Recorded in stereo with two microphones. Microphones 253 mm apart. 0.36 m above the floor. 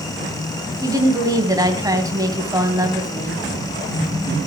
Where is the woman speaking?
15° right (ahead or behind), 2.5 m.